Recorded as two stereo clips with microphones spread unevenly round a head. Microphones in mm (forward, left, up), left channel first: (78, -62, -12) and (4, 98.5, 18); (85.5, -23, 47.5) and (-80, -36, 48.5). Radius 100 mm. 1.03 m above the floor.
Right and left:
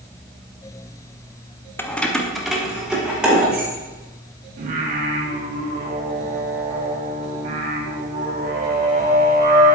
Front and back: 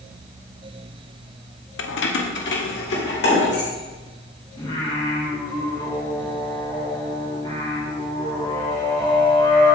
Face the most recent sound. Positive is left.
turn(degrees=70)